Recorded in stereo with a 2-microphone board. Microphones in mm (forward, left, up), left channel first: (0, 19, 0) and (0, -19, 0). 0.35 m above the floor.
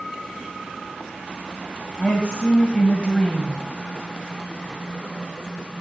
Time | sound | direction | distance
2.0 | a woman speaking | 25° left (ahead or behind) | 2 m